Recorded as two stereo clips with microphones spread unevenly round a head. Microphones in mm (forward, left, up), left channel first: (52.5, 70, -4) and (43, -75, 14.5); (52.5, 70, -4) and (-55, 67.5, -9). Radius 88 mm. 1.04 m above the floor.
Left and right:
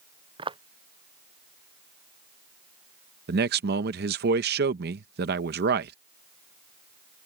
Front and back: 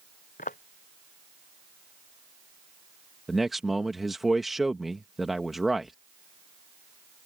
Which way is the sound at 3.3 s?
90° right.